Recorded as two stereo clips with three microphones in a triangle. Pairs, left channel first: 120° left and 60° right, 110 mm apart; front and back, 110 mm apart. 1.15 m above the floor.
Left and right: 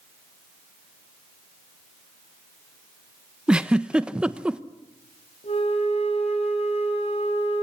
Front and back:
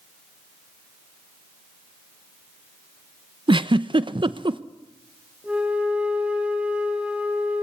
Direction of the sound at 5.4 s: 100° left.